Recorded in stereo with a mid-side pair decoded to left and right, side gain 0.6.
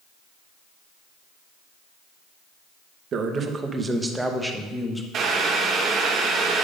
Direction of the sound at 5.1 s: 45° right.